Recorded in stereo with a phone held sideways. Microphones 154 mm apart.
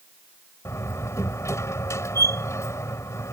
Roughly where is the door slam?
Centre.